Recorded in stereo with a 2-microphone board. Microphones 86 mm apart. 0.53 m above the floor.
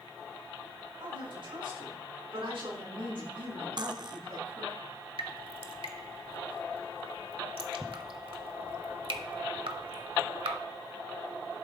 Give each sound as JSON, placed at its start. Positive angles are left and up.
{"t": 1.0, "sound": "a woman speaking", "side_deg": -75, "distance_m": 6.0}
{"t": 3.8, "sound": "cutlery clinking", "side_deg": -50, "distance_m": 0.7}
{"t": 5.2, "sound": "dripping", "side_deg": -80, "distance_m": 1.0}